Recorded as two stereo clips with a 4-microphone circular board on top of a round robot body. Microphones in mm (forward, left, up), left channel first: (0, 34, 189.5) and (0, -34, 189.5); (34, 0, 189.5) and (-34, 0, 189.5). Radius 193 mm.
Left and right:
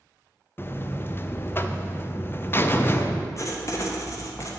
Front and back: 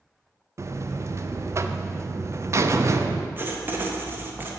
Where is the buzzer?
140° left, 0.7 m.